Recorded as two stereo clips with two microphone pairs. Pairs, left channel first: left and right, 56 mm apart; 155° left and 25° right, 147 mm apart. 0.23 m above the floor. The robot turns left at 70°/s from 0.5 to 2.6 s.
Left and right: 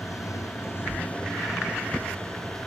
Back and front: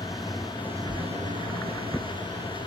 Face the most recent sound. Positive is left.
turn(degrees=-80)